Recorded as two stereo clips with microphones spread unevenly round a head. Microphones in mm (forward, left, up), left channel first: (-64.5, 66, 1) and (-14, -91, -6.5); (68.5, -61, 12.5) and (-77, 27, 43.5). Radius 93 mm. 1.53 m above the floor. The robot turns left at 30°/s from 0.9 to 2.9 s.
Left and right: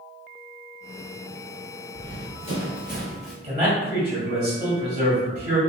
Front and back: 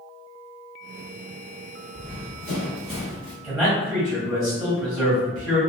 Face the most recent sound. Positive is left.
turn(degrees=-135)